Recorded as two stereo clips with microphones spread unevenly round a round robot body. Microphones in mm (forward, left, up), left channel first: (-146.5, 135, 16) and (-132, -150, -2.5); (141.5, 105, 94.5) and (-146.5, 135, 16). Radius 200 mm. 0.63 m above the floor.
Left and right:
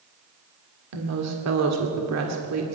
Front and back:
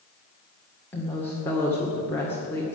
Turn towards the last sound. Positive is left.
turn(degrees=-95)